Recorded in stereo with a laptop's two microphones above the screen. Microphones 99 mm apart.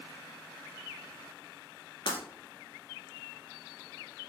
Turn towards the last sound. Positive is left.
turn(degrees=60)  # may be behind; listen again after turning